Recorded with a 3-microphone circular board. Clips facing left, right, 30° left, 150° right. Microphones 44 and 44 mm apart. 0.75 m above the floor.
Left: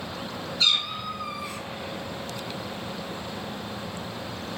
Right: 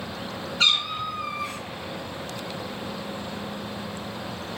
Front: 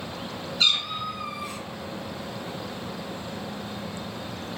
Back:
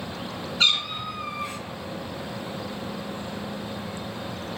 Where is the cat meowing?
110° right, 0.9 m.